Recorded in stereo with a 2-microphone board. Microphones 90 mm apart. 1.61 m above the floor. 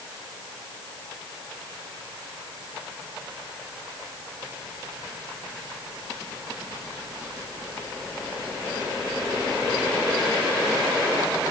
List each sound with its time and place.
Only background noise.